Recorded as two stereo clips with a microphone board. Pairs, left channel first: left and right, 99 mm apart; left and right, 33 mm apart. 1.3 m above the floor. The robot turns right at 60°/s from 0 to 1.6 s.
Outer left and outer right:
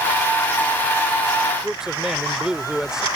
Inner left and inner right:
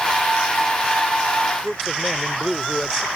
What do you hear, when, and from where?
1.6 s a man speaking: 5° right (ahead or behind)